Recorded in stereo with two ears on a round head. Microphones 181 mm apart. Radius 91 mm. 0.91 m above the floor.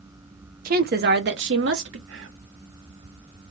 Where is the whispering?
65° right (ahead or behind), 2 m.